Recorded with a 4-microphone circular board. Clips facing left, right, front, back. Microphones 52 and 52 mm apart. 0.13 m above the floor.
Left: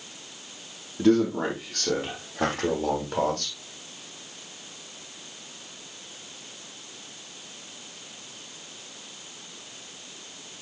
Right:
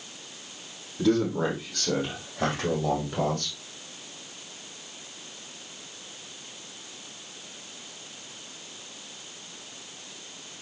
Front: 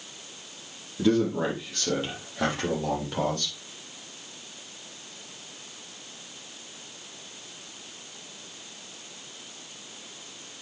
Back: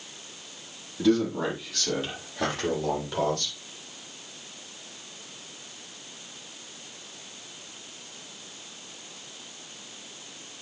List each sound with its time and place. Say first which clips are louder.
1.0 s a man speaking: left 3 dB, even; 60° left, 5 m; by 3.5 s 80° left, 7.5 m